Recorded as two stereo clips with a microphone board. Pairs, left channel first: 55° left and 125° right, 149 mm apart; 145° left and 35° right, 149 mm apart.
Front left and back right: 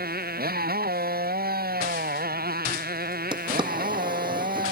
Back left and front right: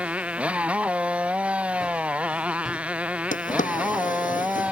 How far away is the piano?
I don't hear a piano.